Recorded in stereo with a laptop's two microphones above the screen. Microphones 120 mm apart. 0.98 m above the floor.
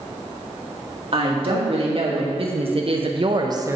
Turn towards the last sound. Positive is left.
turn(degrees=-20)  # may be behind; listen again after turning